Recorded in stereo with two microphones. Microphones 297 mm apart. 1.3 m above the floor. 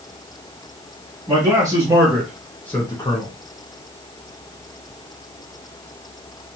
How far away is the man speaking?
About 1.7 m.